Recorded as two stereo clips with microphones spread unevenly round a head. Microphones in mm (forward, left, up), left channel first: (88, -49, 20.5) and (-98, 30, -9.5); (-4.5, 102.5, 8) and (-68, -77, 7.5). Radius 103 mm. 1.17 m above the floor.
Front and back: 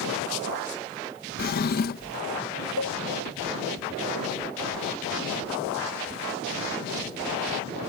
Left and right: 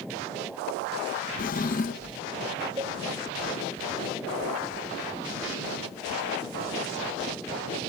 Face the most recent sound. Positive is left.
turn(degrees=-35)